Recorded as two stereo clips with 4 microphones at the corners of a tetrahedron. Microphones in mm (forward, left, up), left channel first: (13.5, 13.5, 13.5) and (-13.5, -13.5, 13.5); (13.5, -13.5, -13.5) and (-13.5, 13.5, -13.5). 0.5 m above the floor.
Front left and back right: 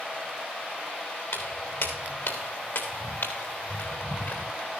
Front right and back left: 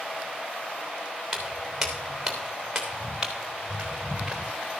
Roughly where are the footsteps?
Ahead left.